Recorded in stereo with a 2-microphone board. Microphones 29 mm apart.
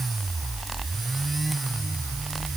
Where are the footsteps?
I don't hear footsteps.